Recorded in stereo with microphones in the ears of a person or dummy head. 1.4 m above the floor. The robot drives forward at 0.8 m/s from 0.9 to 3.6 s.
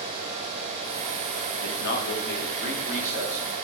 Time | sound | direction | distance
1.6 | a man speaking | 55° left (ahead or behind) | 3 m